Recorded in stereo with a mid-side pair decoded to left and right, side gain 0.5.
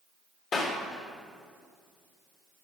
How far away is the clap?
About 2.5 m.